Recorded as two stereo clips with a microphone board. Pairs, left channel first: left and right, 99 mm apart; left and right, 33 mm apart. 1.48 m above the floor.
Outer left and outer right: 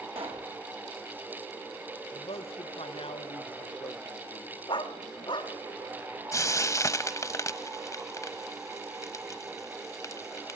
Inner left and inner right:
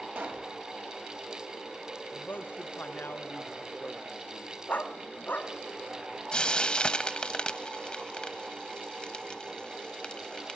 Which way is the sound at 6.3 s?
30° left (ahead or behind).